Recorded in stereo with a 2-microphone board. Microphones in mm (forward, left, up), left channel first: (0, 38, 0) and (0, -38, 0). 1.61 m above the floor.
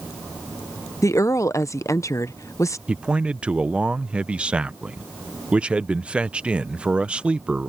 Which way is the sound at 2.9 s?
15° right (ahead or behind).